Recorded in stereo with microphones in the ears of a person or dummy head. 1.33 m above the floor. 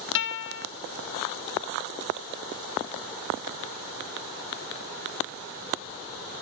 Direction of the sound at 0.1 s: 60° left (ahead or behind).